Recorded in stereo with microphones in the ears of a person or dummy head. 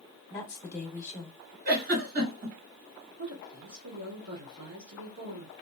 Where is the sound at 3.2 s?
80° right, 1.5 m.